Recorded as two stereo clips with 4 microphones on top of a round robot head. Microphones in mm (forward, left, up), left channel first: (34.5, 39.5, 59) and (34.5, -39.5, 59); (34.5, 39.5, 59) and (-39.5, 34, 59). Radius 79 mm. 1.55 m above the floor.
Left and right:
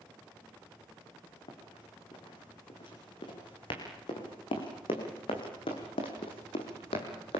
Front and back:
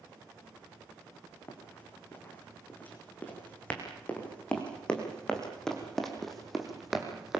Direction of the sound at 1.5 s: 65° left.